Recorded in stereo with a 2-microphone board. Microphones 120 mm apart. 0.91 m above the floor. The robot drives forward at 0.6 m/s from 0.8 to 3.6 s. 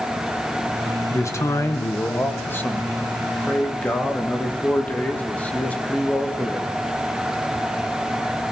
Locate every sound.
1.1 s a man speaking: 25° left (ahead or behind), 0.9 m; by 6.7 s 15° left (ahead or behind), 1.8 m